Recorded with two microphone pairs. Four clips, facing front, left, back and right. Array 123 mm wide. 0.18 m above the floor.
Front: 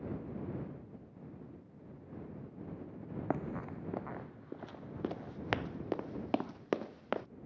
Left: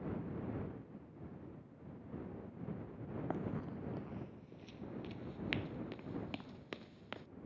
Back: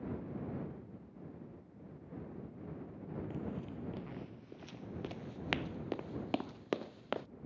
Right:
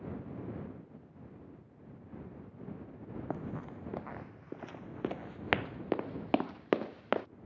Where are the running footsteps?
15° right; by 7.3 s 80° right.